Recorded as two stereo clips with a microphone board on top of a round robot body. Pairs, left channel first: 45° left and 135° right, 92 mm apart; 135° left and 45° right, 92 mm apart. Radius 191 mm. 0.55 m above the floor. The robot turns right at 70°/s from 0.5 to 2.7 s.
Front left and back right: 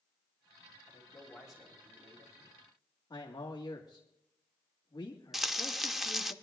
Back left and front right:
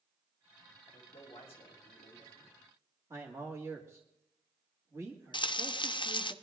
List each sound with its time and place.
0.9 s a man speaking: 95° left, 4.5 m; by 2.6 s 145° right, 4.5 m
3.1 s a man speaking: 10° left, 1.6 m
5.3 s frying: 135° left, 0.8 m